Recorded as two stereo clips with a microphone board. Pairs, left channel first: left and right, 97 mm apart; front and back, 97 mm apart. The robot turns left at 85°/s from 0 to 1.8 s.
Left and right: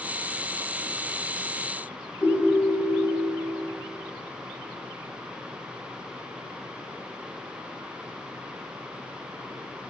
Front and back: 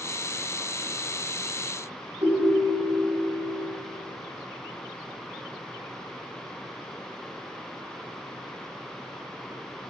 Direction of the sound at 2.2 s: 145° left.